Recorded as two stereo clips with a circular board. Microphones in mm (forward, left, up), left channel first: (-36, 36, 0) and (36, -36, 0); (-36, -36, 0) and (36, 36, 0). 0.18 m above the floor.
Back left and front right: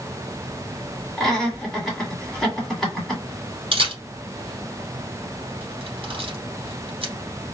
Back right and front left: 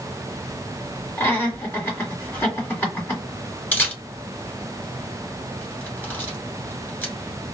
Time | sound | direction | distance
1.2 | laughter | 140° right | 1.6 m
3.7 | a camera shutter | 65° right | 1.5 m